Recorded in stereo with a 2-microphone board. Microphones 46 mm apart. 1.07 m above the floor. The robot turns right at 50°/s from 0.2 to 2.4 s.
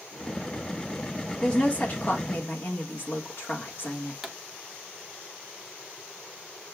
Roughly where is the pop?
Centre.